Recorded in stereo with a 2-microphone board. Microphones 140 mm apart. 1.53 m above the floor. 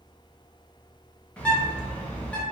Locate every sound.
1.4 s a bird: 10° left (ahead or behind), 0.7 m